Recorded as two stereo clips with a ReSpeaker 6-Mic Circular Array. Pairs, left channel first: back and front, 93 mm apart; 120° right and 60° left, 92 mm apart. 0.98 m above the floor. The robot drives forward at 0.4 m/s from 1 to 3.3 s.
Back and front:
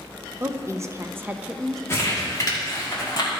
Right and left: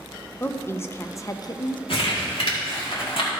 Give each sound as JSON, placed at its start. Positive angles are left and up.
{"t": 0.4, "sound": "a woman speaking", "azimuth_deg": -60, "distance_m": 0.6}
{"t": 1.9, "sound": "crumpling", "azimuth_deg": -120, "distance_m": 1.8}